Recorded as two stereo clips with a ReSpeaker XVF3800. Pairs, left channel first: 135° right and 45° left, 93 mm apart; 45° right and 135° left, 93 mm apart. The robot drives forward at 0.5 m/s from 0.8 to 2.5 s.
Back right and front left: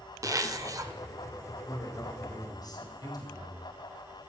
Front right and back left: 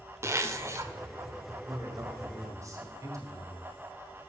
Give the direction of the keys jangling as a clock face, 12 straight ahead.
I don't hear keys jangling.